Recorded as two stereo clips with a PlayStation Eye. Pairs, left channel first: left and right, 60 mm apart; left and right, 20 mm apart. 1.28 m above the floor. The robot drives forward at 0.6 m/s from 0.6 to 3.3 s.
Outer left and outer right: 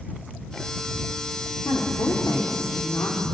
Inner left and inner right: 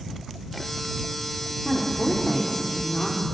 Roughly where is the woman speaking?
Left.